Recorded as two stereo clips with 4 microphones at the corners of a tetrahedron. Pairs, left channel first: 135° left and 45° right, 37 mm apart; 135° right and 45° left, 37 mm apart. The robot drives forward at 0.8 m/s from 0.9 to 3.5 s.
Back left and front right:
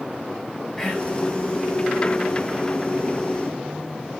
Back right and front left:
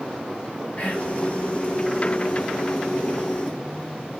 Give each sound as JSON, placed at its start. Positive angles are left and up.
{"t": 0.8, "sound": "whispering", "azimuth_deg": -145, "distance_m": 2.5}